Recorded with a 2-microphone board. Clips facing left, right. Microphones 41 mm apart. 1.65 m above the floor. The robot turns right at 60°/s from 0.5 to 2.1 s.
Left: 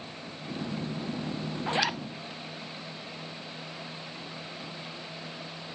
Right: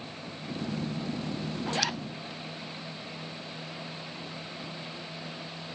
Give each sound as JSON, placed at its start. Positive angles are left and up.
{"t": 1.7, "sound": "a zipper", "side_deg": 25, "distance_m": 0.6}